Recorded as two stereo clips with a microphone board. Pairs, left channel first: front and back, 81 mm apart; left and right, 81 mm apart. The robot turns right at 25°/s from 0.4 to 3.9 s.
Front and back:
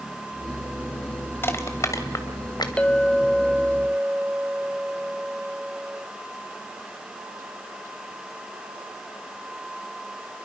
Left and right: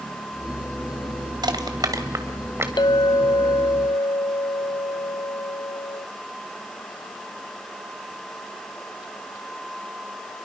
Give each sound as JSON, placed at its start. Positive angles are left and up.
{"t": 1.4, "sound": "crushing", "azimuth_deg": -60, "distance_m": 2.0}
{"t": 2.8, "sound": "a clink", "azimuth_deg": 75, "distance_m": 0.6}